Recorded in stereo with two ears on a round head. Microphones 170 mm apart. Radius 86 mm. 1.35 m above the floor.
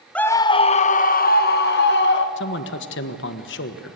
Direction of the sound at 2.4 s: 70° left (ahead or behind).